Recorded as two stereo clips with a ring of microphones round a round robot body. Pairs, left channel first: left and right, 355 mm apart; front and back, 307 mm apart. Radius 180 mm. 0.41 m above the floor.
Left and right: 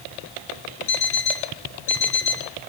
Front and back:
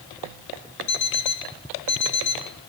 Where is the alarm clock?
35° left, 2.5 m.